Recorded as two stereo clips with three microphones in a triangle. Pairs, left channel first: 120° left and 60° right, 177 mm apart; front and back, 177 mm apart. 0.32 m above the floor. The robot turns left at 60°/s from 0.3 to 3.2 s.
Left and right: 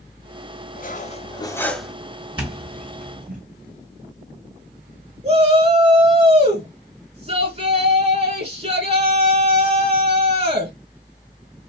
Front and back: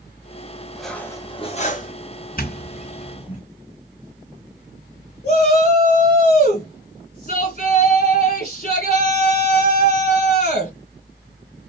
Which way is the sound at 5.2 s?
25° right.